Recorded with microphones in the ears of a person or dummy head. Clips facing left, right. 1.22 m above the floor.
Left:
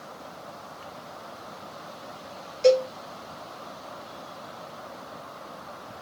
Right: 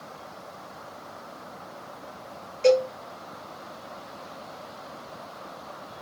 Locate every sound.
2.6 s a cowbell: 10° left (ahead or behind), 5.5 m